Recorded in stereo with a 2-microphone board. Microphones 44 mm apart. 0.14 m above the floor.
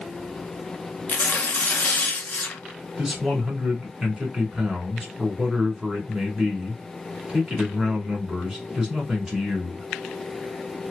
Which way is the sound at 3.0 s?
10° right (ahead or behind).